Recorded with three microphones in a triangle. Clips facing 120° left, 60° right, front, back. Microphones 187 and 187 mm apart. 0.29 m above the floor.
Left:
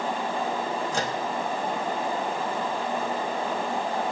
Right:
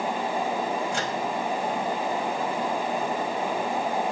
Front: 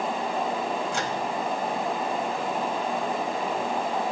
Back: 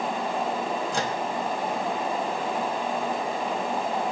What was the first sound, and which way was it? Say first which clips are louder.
A microwave: even, back 1 dB; 145° left.